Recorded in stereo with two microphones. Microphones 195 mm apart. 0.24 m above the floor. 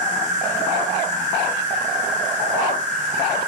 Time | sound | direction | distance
0.0 | an insect | 45° right (ahead or behind) | 1.2 m